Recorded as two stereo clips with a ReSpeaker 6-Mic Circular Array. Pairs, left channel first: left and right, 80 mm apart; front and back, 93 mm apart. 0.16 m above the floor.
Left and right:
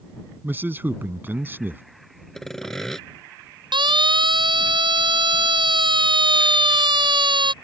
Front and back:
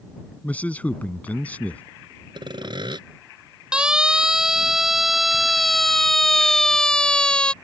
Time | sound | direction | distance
0.4 | a man speaking | 55° right | ?
2.4 | sawing | 175° left | ?
3.7 | a siren | 100° right | ?